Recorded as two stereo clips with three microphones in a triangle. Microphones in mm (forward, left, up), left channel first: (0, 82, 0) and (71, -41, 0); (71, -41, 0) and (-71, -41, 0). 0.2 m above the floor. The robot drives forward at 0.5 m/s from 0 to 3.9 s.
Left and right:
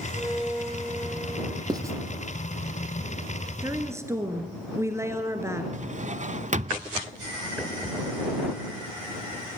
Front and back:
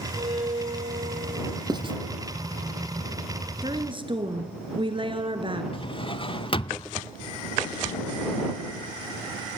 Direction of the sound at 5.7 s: 45° right.